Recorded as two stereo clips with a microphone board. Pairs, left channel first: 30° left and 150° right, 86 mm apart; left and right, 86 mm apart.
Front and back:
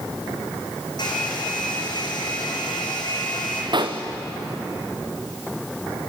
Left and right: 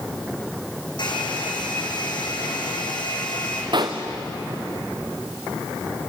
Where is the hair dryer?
65° left, 5.5 m.